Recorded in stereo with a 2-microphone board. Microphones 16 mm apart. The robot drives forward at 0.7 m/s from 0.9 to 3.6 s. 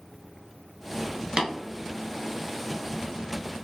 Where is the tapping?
55° right (ahead or behind), 1.2 m.